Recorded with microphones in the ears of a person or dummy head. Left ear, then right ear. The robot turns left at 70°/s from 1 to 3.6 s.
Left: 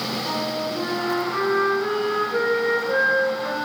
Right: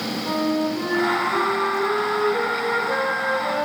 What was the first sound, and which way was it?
A flute, 155° left.